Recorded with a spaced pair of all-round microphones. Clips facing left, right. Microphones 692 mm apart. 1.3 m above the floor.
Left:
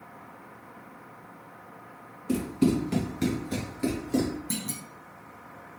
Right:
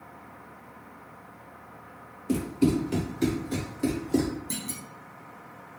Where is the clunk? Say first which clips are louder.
Left 2 dB; 30° left (ahead or behind), 0.5 m.